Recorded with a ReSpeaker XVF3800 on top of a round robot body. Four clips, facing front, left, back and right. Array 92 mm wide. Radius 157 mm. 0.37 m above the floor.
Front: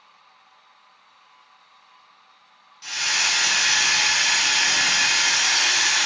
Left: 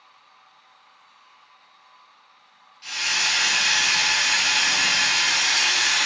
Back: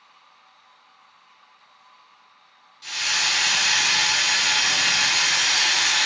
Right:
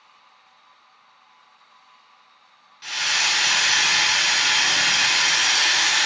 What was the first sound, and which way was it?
A hiss, 70° right.